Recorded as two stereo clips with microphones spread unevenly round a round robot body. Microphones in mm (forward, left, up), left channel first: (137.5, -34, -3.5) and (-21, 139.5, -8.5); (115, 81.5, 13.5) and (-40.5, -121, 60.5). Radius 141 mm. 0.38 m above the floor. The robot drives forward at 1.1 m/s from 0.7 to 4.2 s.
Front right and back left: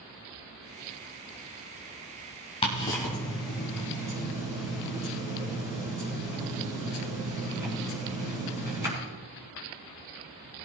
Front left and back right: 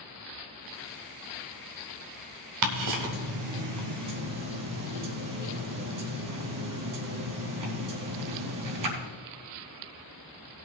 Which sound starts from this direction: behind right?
Ticking, at 2.6 s.